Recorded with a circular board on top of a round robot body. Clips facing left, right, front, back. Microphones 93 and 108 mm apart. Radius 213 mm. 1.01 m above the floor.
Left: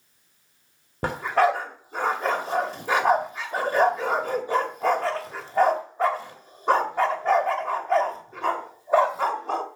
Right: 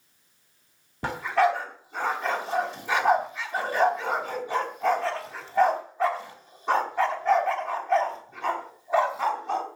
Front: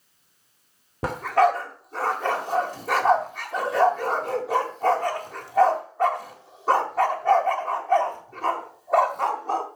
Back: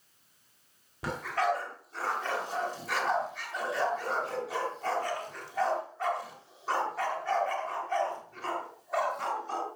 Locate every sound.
1.0 s a dog barking: 40° left, 1.8 m